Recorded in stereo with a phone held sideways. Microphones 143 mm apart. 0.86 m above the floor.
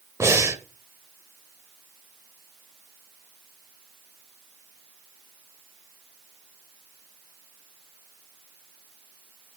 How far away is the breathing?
About 0.8 m.